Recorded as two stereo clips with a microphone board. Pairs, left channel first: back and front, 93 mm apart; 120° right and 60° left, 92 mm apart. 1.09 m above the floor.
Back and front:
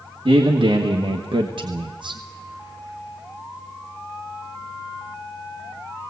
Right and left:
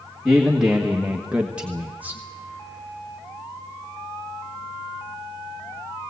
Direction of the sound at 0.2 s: 25° right.